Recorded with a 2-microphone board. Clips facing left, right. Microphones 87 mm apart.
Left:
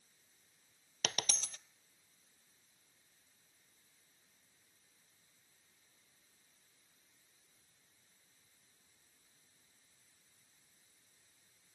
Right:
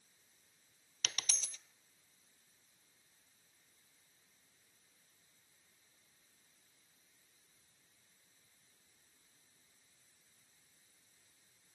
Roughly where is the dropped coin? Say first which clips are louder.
Left 5 dB; left.